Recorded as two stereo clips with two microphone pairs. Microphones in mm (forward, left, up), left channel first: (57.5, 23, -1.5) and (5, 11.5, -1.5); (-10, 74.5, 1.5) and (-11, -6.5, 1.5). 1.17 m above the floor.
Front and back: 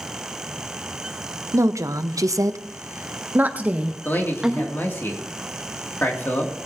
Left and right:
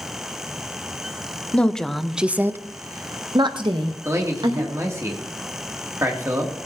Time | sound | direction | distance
1.5 | a woman speaking | 165° left | 0.9 m
4.0 | a man speaking | 35° right | 2.5 m